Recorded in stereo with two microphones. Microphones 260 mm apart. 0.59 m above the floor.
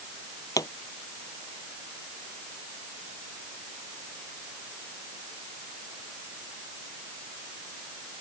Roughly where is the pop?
Centre.